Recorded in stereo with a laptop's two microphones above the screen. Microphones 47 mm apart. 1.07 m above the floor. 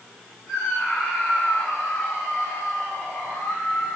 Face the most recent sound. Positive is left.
turn(degrees=15)  # may be behind; listen again after turning